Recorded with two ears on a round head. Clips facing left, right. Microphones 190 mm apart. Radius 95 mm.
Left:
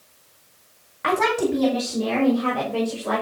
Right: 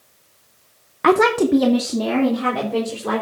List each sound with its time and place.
1.0 s a woman speaking: 60° right (ahead or behind), 0.7 m; by 3.2 s 75° right (ahead or behind), 4 m